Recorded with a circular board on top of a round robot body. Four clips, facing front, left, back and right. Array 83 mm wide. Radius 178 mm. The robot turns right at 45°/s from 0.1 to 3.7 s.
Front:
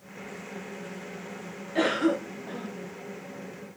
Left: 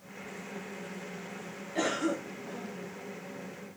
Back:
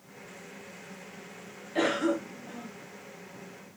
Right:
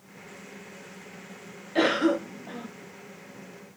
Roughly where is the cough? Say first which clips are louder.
Right 8 dB, front 2 dB; right.